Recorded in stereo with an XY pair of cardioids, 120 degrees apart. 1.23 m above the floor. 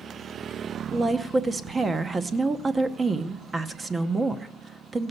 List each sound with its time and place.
0.9 s a woman speaking: 25° right, 0.8 m